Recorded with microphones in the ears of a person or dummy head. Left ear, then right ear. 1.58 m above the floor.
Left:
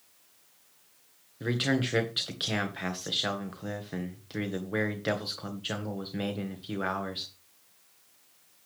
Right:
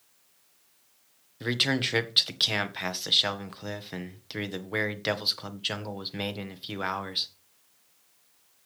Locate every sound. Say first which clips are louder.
1.4 s a man speaking: right 3 dB; 35° right (ahead or behind), 1.7 m